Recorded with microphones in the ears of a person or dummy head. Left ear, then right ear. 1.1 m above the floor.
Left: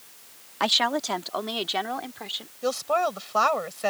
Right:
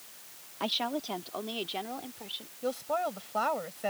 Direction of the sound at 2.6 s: 50° left (ahead or behind).